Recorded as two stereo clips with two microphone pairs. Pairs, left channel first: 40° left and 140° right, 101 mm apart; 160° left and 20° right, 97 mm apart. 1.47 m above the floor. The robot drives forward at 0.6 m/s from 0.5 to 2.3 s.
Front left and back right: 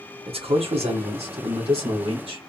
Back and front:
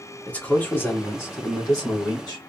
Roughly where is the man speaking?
Behind right.